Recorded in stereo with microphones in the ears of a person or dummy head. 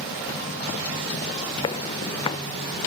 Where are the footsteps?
25° left (ahead or behind).